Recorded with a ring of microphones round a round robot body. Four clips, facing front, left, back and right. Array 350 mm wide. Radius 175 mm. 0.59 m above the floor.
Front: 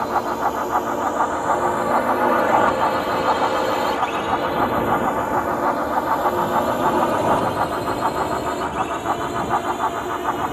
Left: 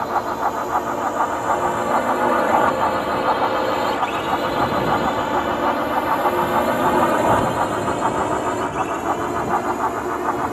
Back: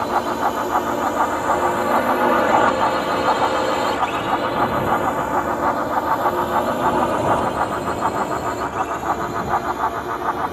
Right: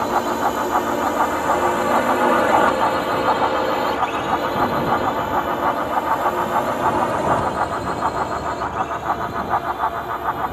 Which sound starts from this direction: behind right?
A drone, at 0.0 s.